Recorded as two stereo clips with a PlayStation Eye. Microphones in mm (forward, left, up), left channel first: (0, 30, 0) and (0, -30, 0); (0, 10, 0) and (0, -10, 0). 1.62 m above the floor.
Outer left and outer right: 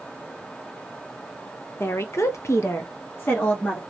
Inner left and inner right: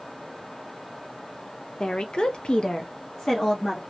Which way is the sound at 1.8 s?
40° left (ahead or behind).